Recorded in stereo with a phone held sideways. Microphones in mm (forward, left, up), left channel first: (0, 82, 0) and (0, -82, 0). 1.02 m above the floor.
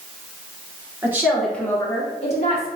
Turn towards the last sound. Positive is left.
turn(degrees=50)  # may be behind; listen again after turning